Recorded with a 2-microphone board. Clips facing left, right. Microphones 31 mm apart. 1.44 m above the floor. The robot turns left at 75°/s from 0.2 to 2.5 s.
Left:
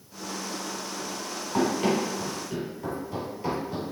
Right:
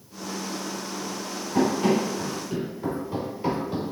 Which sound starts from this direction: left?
Running footsteps, at 1.5 s.